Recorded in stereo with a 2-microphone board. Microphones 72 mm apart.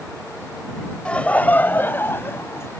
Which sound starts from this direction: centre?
Laughter, at 1.1 s.